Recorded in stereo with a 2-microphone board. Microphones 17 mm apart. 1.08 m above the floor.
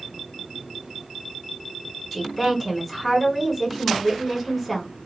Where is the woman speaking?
15° left (ahead or behind), 1.2 m.